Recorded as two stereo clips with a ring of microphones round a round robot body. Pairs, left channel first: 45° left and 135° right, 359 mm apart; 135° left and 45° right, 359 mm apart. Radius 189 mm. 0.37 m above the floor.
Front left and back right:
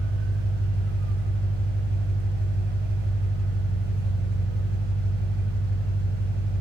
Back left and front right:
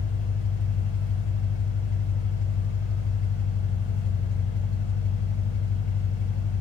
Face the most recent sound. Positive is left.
turn(degrees=115)